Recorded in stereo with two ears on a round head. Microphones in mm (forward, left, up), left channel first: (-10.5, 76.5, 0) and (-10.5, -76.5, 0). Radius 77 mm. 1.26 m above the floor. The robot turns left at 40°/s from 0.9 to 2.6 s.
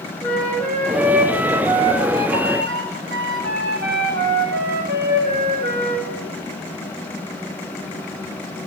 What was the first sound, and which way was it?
A flute, 5° left.